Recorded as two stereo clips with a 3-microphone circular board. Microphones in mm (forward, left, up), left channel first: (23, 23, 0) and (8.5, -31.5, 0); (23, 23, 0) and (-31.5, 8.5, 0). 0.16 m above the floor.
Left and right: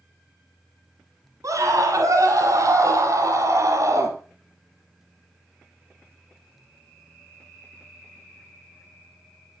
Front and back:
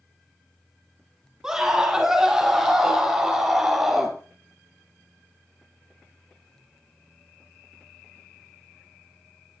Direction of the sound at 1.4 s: 85° right.